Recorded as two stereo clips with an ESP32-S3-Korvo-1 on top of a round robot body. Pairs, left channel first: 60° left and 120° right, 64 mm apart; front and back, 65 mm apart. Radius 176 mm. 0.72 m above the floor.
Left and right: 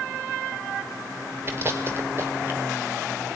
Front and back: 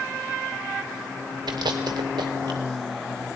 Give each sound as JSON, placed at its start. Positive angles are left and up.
{"t": 1.5, "sound": "chewing", "azimuth_deg": -175, "distance_m": 0.8}